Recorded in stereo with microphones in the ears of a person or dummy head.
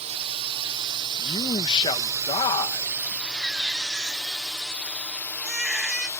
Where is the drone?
35° right (ahead or behind); by 6.2 s 10° left (ahead or behind).